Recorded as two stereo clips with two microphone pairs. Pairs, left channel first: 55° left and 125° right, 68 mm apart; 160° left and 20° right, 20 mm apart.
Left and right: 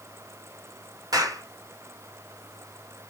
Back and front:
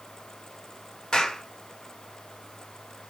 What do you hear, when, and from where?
1.1 s a clap: 145° right, 3.5 m